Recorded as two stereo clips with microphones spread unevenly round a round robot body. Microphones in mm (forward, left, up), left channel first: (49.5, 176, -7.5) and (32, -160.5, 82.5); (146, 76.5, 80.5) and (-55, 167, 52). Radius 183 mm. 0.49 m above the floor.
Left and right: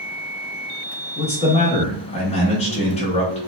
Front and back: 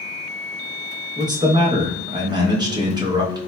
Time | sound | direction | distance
1.2 | a man speaking | 110° left | 0.8 m